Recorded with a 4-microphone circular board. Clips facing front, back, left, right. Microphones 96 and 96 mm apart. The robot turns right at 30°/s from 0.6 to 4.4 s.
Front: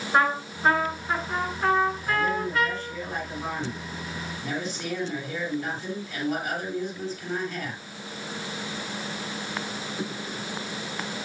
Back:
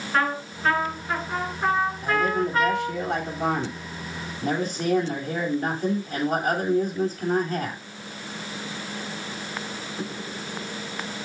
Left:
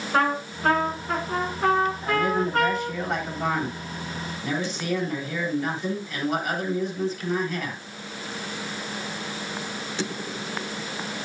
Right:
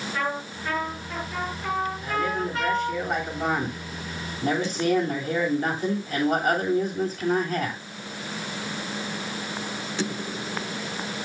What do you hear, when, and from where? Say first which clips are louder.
0.1 s a trumpet: front 2 dB, left 8 dB; 70° left, 7.5 m; by 3.0 s 145° left, 7.5 m
2.0 s a man speaking: back 3 dB, left 3 dB; 150° left, 9.5 m; by 7.8 s 140° right, 9.5 m